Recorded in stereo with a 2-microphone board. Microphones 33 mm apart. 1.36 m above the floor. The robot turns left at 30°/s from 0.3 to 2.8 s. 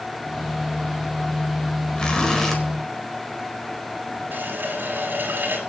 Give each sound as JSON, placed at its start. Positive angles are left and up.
{"t": 2.0, "sound": "a zipper", "side_deg": 25, "distance_m": 4.0}
{"t": 4.3, "sound": "a running tap", "side_deg": -70, "distance_m": 4.5}